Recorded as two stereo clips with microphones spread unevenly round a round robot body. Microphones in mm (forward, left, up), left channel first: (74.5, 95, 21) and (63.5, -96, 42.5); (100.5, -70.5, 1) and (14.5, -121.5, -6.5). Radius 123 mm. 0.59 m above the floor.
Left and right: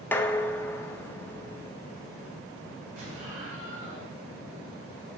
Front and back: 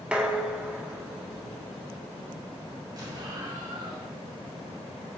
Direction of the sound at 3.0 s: 100° right.